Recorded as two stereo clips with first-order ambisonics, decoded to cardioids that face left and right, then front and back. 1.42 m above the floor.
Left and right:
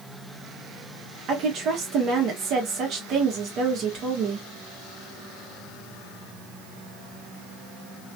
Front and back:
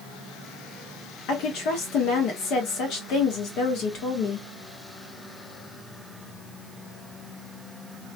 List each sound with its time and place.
1.3 s a woman speaking: 40° right, 1.6 m